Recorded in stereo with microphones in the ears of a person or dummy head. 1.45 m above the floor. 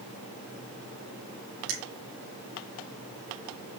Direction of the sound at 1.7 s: 65° right (ahead or behind).